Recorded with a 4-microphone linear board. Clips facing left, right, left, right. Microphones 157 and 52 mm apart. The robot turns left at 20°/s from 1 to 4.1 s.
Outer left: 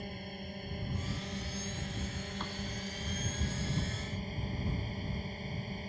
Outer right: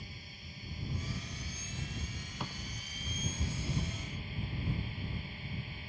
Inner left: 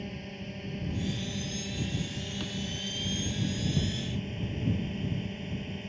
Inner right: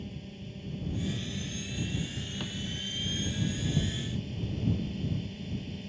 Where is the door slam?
10° right (ahead or behind); by 2.6 s 5° right (ahead or behind).